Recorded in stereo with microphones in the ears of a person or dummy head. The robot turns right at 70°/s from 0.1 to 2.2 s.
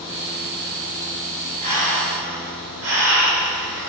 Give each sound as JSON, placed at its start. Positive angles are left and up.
{"t": 1.6, "sound": "breathing", "azimuth_deg": -140, "distance_m": 4.0}